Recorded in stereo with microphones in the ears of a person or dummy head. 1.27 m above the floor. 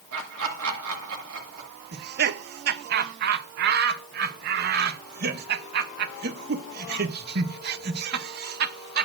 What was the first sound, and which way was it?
Laughter, 80° right.